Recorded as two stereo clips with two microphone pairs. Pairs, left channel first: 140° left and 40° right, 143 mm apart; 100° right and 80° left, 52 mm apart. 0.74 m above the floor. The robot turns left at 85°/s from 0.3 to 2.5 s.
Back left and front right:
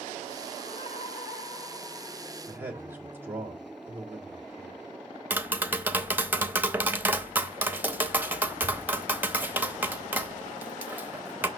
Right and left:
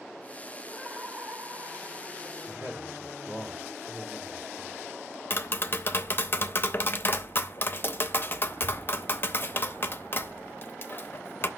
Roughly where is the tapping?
Right.